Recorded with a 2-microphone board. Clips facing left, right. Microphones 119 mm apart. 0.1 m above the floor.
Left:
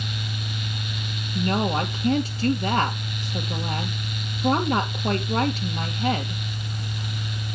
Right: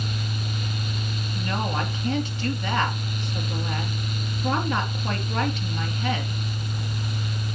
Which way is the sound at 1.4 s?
40° left (ahead or behind).